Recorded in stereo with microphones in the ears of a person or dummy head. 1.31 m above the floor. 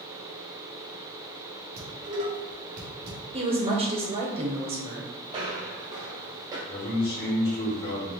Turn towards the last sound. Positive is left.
turn(degrees=50)  # may be behind; listen again after turning